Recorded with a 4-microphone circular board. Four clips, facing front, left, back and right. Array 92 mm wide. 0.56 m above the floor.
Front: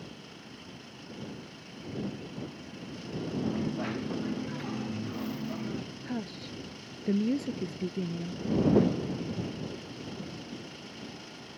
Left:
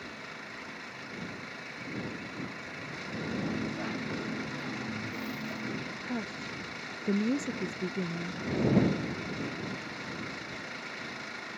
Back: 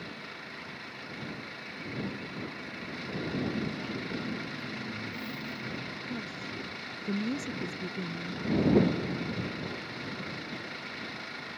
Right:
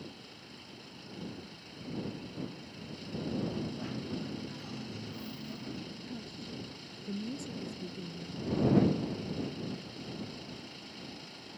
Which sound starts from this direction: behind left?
An engine running, at 0.0 s.